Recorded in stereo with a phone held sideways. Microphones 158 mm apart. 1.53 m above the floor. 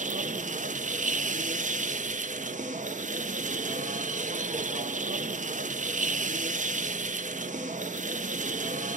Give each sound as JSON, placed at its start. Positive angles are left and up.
{"t": 0.0, "sound": "a machine running", "side_deg": -55, "distance_m": 0.7}